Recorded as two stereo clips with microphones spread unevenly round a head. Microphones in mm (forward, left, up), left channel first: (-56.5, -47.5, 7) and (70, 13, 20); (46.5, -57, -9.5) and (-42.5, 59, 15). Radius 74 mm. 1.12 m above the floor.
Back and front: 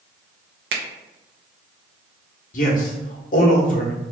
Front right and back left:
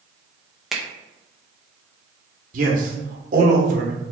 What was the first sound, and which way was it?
A finger snap, 35° left.